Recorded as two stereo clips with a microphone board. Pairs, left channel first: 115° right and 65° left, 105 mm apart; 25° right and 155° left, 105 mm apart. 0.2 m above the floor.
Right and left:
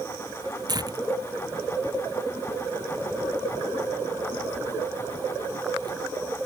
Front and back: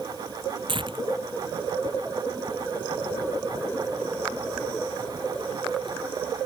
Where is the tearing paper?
120° left.